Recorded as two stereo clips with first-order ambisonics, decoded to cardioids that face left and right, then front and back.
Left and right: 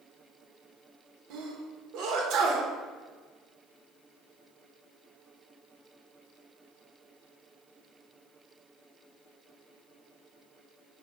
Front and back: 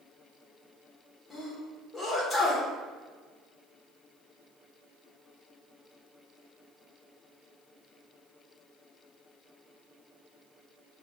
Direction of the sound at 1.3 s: 75° right.